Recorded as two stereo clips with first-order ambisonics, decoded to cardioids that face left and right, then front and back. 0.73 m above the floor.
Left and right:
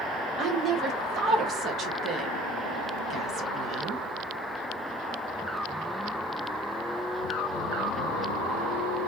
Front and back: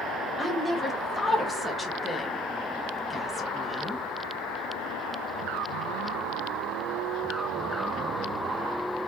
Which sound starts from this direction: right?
A woman speaking, at 0.4 s.